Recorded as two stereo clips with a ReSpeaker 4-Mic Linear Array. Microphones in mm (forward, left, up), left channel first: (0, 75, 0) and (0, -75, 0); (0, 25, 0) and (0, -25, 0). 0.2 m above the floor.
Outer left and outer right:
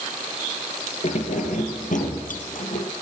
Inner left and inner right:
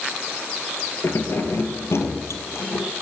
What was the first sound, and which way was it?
Keys jangling, 55° left (ahead or behind).